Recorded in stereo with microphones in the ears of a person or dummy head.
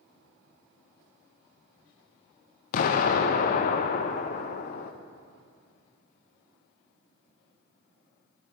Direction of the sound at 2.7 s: 50° left (ahead or behind).